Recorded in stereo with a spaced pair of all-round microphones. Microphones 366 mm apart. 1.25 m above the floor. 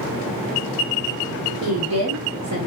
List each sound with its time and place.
1.6 s a woman speaking: 85° right, 1.0 m; by 2.7 s 35° right (ahead or behind), 0.7 m